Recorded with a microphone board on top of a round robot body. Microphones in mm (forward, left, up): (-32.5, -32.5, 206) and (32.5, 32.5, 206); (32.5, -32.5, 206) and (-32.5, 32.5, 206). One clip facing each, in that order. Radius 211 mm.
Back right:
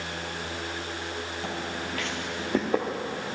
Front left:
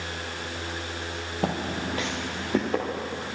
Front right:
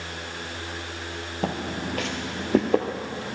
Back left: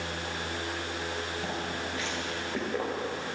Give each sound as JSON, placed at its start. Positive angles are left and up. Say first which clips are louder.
{"t": 1.4, "sound": "footsteps", "louder": "front left 8 dB, front right 5 dB", "azimuth_deg": 0, "distance_m": 0.9}